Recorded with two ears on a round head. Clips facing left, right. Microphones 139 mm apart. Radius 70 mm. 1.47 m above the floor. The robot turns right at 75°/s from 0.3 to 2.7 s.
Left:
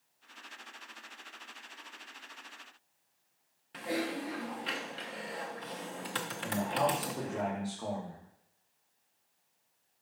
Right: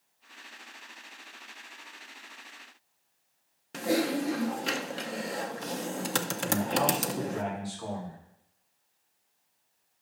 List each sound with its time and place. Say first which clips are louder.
3.7 s typing on a keyboard: right 8 dB; 50° right (ahead or behind), 0.7 m
6.4 s a man speaking: right 2 dB; 10° left (ahead or behind), 2.5 m